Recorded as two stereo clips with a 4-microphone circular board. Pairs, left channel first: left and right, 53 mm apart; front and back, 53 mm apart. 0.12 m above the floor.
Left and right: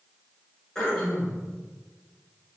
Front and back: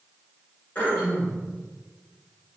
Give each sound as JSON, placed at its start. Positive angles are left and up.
{"t": 0.8, "sound": "throat clearing", "azimuth_deg": 15, "distance_m": 1.6}